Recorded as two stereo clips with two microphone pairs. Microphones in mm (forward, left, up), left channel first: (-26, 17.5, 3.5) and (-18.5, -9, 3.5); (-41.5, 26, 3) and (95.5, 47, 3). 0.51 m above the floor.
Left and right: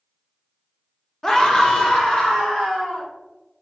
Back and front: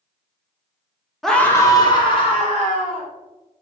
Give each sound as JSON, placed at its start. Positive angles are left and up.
{"t": 1.2, "sound": "a scream", "azimuth_deg": 95, "distance_m": 0.7}